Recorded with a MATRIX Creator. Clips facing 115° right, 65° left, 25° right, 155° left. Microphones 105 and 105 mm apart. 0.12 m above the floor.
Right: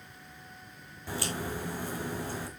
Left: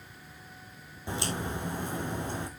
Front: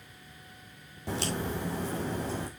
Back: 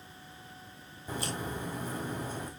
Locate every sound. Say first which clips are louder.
1.1 s a crack: left 1 dB, front 4 dB; 5° right, 3 m